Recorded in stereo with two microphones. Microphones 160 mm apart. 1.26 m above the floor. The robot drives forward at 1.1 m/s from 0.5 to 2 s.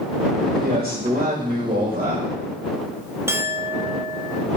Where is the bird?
No bird in this recording.